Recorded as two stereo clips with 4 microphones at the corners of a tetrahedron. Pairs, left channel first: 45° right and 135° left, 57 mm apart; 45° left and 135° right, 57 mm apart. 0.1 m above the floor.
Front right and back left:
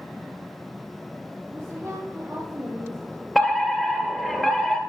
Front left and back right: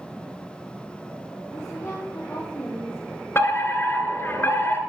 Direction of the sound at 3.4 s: 45° left.